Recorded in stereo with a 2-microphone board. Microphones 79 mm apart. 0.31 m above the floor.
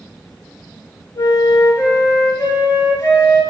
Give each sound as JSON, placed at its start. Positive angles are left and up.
{"t": 1.1, "sound": "a flute", "side_deg": 55, "distance_m": 0.8}